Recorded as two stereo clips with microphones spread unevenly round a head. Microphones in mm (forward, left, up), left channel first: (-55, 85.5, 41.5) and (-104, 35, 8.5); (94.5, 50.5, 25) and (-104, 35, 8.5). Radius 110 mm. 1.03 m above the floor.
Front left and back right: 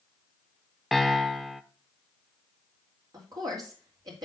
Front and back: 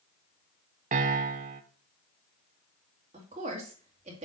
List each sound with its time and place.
0.9 s a piano: 160° left, 0.7 m
3.1 s a woman speaking: 115° right, 2.5 m